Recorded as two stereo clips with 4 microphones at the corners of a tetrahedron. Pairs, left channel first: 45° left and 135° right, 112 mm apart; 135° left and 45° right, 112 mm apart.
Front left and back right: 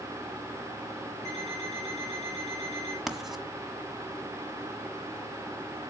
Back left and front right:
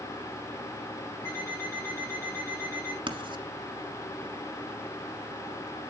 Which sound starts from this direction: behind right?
An alarm clock, at 1.2 s.